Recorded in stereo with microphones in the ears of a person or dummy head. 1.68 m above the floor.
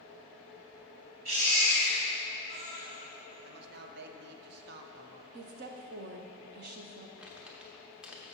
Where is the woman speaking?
50° right (ahead or behind), 0.7 m.